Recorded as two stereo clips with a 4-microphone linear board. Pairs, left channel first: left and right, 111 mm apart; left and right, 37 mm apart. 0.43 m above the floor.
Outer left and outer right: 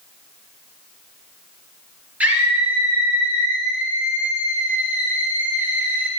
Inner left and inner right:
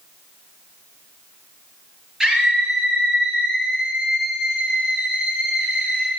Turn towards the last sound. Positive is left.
turn(degrees=-15)  # may be behind; listen again after turning